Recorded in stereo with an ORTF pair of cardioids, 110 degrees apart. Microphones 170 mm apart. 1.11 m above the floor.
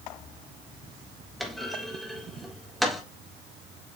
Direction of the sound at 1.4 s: Straight ahead.